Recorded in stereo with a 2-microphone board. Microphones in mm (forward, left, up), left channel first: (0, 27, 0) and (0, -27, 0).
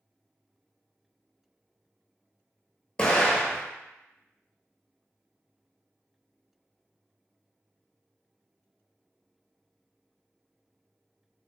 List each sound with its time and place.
3.0 s an explosion: 15° left (ahead or behind), 0.6 m